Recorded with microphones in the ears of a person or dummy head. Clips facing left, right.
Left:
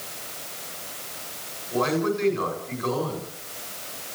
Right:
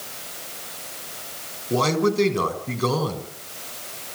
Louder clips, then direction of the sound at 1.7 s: Right 3 dB; 55° right (ahead or behind).